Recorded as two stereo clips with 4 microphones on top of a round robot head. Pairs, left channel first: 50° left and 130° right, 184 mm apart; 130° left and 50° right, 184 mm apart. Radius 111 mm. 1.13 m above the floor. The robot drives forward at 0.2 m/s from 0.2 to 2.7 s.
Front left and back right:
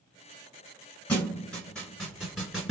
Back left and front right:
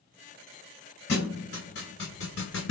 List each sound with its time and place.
1.1 s a thud: 130° left, 1.3 m; by 2.7 s 140° left, 1.5 m